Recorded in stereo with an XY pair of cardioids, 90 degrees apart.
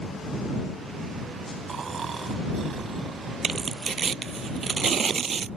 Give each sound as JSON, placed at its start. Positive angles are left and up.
{"t": 1.7, "sound": "snoring", "azimuth_deg": -50}
{"t": 3.4, "sound": "tearing paper", "azimuth_deg": -50}